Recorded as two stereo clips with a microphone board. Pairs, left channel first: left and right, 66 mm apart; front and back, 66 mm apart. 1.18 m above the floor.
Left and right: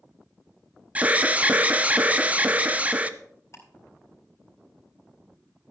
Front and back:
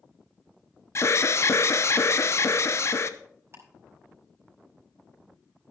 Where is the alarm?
30° right, 0.7 m.